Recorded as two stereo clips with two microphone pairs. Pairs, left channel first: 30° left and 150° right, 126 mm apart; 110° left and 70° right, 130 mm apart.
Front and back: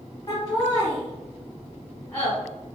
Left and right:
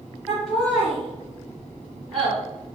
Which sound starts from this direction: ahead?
Laughter, at 0.3 s.